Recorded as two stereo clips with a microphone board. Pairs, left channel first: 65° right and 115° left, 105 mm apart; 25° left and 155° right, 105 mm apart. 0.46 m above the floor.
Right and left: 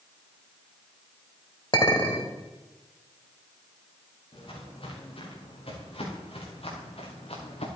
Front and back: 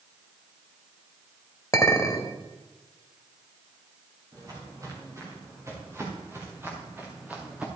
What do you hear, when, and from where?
1.7 s a clink: 35° right, 1.4 m
4.3 s footsteps: 100° right, 6 m; by 7.7 s 80° right, 3 m